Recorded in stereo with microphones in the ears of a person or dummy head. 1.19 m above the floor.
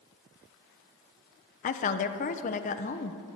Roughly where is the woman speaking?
Left.